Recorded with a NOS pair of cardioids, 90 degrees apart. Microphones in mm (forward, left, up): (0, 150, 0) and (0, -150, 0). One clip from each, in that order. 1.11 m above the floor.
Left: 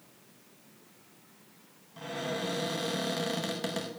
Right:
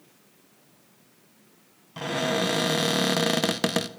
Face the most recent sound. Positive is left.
turn(degrees=-60)